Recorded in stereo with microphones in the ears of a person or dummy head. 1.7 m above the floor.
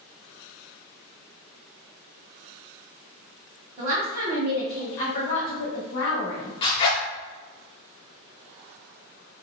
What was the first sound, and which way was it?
A woman speaking, 40° right (ahead or behind).